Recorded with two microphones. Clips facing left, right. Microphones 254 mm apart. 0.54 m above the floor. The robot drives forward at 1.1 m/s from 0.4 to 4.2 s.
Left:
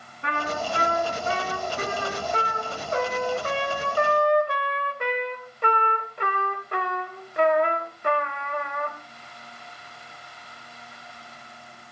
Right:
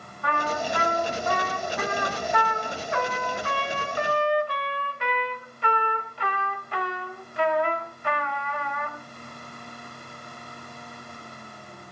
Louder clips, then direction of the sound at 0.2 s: Right 1 dB; 25° left (ahead or behind).